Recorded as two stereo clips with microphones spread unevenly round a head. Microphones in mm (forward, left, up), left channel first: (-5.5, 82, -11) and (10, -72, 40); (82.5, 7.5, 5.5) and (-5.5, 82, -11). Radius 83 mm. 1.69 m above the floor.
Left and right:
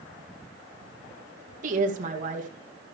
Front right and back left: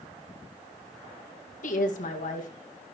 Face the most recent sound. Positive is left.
turn(degrees=-45)